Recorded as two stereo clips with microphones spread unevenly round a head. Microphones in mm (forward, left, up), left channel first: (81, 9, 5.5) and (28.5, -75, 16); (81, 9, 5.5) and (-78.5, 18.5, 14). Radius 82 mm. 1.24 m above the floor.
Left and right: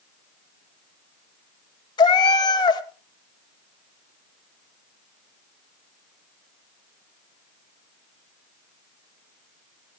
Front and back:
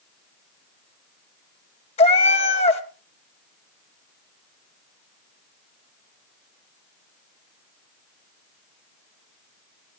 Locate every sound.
2.0 s a cat meowing: 35° left, 1.2 m